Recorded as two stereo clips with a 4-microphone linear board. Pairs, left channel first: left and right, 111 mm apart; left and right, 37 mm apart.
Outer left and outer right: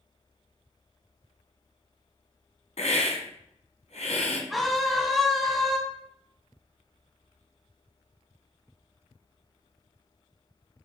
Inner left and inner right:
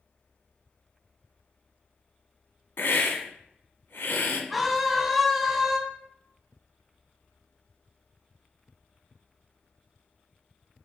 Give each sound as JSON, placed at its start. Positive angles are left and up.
{"t": 2.8, "sound": "a hiss", "side_deg": 80, "distance_m": 1.5}
{"t": 4.5, "sound": "a scream", "side_deg": 0, "distance_m": 2.5}